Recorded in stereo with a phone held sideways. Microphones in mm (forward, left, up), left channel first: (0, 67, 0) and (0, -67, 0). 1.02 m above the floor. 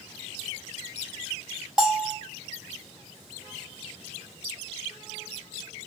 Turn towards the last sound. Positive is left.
turn(degrees=-5)  # may be behind; listen again after turning